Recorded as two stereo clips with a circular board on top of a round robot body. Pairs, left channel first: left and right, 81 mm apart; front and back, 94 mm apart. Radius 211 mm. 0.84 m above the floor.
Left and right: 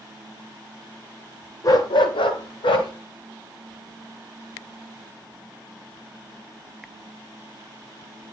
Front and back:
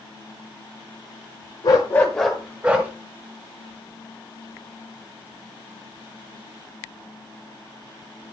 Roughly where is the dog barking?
Ahead left.